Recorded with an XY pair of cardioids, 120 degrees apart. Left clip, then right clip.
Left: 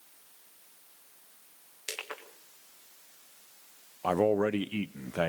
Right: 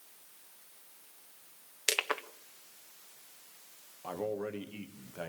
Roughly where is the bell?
No bell in this recording.